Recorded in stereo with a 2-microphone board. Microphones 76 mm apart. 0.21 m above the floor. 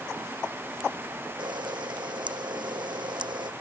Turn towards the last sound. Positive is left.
turn(degrees=-85)